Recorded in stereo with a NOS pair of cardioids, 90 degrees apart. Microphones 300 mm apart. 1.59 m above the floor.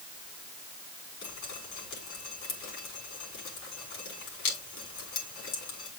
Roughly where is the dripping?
Left.